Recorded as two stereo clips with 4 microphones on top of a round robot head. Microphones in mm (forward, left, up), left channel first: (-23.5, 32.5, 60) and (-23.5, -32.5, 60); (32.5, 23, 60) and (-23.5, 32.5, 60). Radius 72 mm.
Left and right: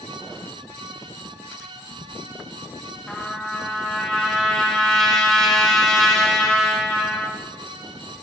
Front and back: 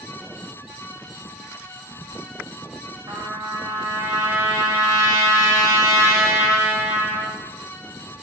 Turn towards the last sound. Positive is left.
turn(degrees=170)